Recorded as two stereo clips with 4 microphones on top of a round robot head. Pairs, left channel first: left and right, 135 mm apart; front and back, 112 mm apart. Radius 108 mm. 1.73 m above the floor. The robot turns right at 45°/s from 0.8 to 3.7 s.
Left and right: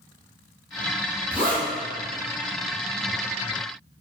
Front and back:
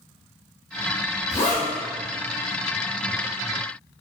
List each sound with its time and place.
1.3 s a zipper: 10° right, 0.8 m; by 1.7 s 5° left, 0.8 m